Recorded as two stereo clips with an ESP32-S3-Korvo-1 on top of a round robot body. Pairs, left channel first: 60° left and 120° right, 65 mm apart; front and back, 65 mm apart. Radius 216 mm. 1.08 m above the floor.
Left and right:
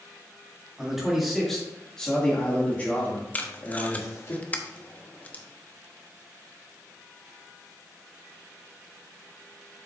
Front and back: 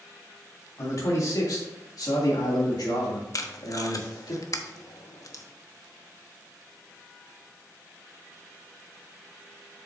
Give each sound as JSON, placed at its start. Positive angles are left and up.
{"t": 0.8, "sound": "a man speaking", "azimuth_deg": -40, "distance_m": 3.0}
{"t": 3.3, "sound": "tape being pulled", "azimuth_deg": -5, "distance_m": 1.2}